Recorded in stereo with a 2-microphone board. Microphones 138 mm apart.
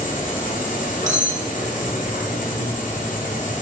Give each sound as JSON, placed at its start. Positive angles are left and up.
{"t": 0.0, "sound": "an insect", "side_deg": 65, "distance_m": 2.5}
{"t": 1.1, "sound": "cutlery clinking", "side_deg": -60, "distance_m": 1.6}